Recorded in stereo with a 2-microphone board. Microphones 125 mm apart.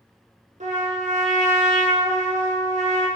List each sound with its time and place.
0.6 s a trumpet: 70° right (ahead or behind), 0.5 m